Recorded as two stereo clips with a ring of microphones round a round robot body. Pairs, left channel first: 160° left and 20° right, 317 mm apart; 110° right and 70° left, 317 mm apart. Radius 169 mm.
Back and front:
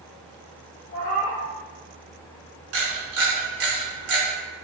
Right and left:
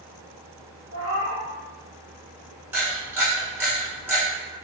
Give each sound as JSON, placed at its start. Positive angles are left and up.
{"t": 0.9, "sound": "a cat meowing", "azimuth_deg": -140, "distance_m": 1.3}
{"t": 2.7, "sound": "a camera shutter", "azimuth_deg": -15, "distance_m": 1.2}